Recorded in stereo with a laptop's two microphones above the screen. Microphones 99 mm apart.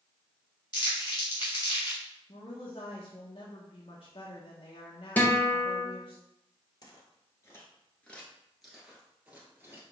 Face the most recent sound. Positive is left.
turn(degrees=-20)  # may be behind; listen again after turning